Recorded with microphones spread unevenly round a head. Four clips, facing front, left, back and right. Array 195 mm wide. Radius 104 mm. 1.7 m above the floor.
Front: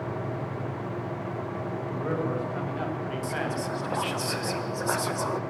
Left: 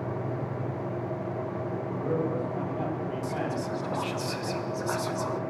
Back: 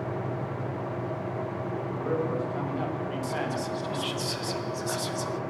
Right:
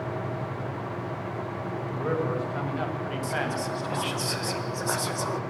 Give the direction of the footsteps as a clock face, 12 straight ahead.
I don't hear footsteps.